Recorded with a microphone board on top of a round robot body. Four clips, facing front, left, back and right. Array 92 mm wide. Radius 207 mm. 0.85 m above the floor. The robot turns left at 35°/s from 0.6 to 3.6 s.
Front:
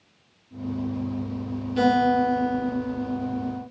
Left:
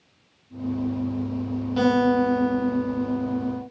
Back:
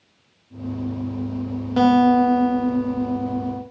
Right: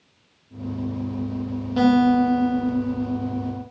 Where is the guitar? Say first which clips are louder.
Right 3 dB, back 5 dB; straight behind, 0.8 m; by 3.6 s 115° left, 0.8 m.